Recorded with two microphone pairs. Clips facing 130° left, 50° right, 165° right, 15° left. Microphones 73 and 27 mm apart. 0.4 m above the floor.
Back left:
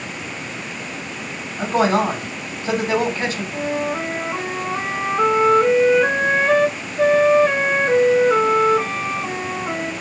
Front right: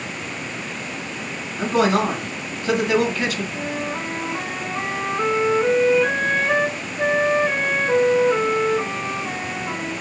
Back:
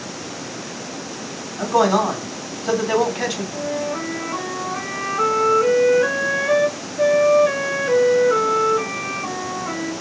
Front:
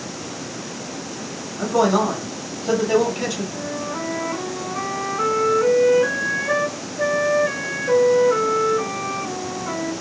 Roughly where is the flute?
Behind left.